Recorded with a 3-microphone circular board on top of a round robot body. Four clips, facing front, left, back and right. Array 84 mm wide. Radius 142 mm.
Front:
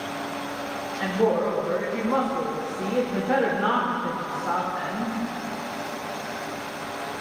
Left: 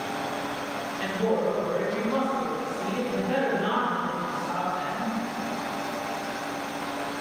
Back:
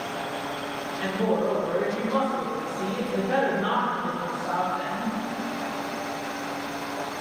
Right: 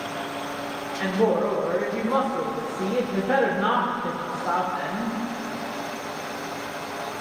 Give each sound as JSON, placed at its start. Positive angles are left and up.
{"t": 1.0, "sound": "a woman speaking", "azimuth_deg": -60, "distance_m": 3.0}